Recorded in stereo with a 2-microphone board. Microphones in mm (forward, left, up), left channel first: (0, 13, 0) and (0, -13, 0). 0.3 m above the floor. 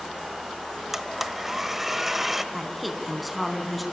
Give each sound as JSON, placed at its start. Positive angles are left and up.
{"t": 0.9, "sound": "a blender", "side_deg": -10, "distance_m": 1.0}
{"t": 2.5, "sound": "a woman speaking", "side_deg": -5, "distance_m": 3.0}